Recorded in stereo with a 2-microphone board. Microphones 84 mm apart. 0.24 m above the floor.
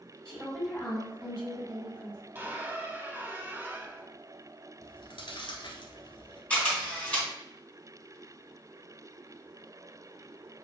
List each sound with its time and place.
0.2 s a woman speaking: centre (ahead or behind), 2.5 m
2.4 s a squeak: 25° right (ahead or behind), 0.7 m
4.8 s chewing: 80° left, 1.0 m
6.5 s a camera shutter: 15° left (ahead or behind), 2.5 m